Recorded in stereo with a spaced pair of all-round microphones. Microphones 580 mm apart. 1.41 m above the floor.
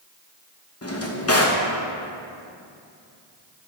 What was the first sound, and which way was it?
A drawer, 25° left (ahead or behind).